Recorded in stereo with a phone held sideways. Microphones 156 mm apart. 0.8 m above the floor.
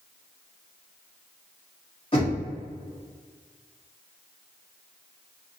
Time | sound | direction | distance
2.1 | knocking | 35° left (ahead or behind) | 1.3 m